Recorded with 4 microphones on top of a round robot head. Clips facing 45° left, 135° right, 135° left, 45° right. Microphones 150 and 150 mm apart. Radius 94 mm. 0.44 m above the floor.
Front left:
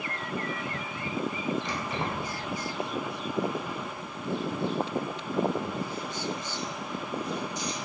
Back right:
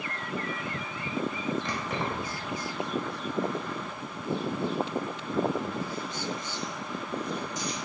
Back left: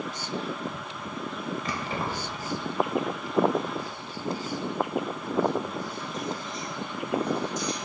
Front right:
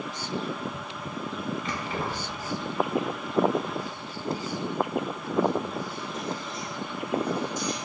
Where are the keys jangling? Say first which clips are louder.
Even, even; 175° right, 1.4 m; by 7.8 s 125° right, 4 m.